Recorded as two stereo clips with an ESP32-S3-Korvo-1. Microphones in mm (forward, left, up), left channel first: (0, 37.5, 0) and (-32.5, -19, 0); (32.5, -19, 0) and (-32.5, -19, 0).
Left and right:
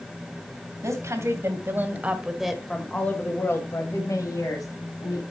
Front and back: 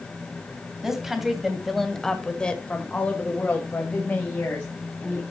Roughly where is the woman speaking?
Right.